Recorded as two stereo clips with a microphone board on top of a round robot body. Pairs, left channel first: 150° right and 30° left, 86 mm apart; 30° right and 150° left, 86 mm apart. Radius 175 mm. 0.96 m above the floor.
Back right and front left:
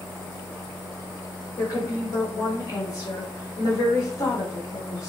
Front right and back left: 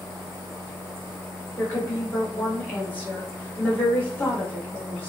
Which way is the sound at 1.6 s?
100° right.